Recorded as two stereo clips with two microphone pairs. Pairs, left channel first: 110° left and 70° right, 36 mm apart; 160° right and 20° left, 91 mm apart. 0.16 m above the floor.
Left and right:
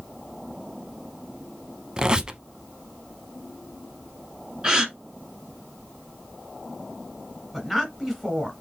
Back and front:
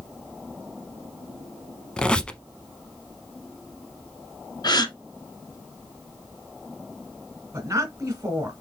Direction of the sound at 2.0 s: 90° right.